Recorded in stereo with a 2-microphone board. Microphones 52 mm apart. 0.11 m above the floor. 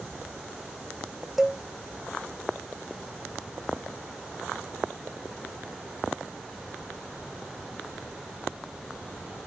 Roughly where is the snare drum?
I don't hear a snare drum.